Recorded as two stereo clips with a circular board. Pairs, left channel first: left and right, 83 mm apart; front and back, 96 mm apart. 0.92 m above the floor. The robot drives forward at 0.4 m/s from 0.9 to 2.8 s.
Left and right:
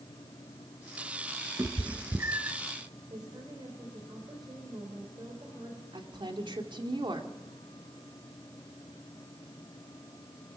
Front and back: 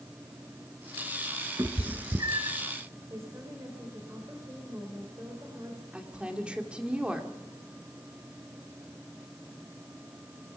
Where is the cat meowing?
135° right, 1.4 m; by 2.6 s 145° right, 1.7 m.